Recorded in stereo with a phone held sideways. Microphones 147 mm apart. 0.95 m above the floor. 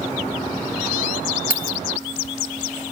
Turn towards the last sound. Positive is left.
turn(degrees=75)  # may be behind; listen again after turning